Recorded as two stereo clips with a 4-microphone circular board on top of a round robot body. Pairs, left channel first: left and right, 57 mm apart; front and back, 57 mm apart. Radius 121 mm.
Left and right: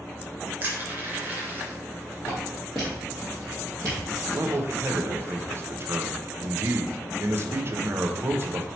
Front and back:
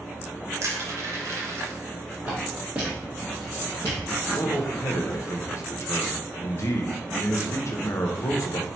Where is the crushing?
145° right, 0.9 m.